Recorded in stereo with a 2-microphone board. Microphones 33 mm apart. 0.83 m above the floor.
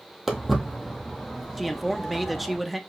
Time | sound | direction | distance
0.3 | footsteps | 5° right (ahead or behind) | 1.3 m
1.6 | a man speaking | centre (ahead or behind) | 0.5 m